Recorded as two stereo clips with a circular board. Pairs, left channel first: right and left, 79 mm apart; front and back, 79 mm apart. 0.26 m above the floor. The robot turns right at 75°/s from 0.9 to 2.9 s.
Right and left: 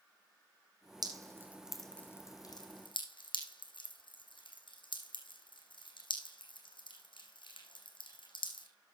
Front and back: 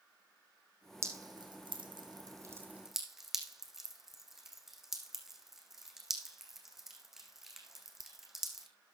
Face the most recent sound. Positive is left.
turn(degrees=-95)